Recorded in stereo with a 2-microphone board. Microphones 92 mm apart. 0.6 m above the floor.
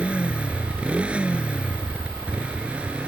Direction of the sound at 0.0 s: 15° right (ahead or behind).